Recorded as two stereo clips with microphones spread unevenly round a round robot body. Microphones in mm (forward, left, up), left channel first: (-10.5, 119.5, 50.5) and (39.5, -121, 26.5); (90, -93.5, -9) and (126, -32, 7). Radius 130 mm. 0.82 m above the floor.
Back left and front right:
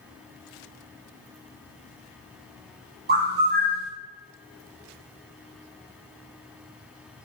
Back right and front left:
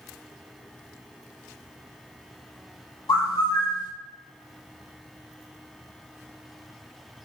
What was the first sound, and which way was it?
A bird, 125° right.